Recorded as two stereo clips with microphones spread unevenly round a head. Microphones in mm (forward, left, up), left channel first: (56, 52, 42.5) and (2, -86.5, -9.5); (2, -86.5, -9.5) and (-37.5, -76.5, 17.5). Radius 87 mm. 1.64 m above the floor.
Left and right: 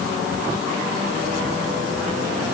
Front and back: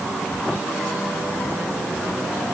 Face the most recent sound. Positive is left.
No sound to turn to.